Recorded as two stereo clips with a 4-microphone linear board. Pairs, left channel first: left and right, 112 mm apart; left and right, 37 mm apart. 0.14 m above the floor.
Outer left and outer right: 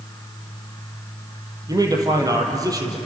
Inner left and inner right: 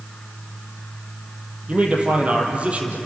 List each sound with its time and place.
1.7 s a man speaking: 35° right (ahead or behind), 5 m